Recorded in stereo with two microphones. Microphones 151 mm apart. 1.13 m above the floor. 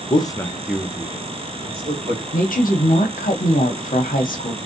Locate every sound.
0.1 s a man speaking: 30° left (ahead or behind), 0.6 m; by 2.2 s 45° right (ahead or behind), 1.2 m
2.3 s a woman speaking: 65° left (ahead or behind), 0.8 m